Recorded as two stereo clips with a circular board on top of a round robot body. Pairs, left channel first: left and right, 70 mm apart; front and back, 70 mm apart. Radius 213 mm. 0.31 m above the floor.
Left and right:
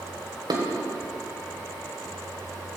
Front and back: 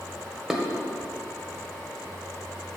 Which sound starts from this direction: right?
Dishes clattering, at 0.5 s.